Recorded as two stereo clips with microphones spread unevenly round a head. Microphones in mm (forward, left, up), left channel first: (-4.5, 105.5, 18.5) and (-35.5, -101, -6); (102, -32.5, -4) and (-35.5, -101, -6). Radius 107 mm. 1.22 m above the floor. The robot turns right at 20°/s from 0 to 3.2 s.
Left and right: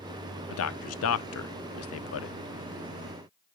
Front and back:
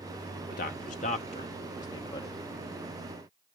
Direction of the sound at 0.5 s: 65° left.